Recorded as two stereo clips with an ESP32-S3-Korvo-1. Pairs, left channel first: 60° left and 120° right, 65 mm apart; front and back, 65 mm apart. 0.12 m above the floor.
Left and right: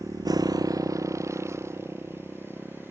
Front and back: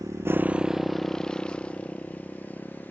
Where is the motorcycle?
155° right; by 2.9 s 65° right.